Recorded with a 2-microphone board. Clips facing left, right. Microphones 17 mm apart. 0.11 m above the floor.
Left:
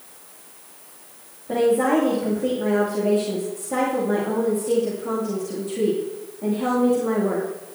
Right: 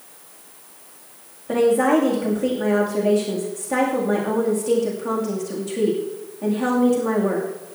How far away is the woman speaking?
About 7 m.